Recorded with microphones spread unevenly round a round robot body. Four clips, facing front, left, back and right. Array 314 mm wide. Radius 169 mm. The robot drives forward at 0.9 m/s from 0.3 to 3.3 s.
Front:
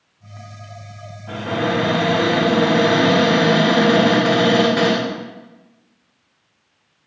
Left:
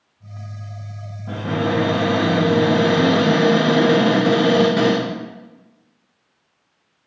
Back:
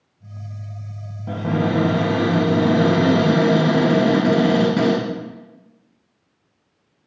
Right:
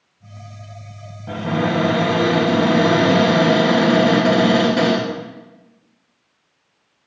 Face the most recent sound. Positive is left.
turn(degrees=-175)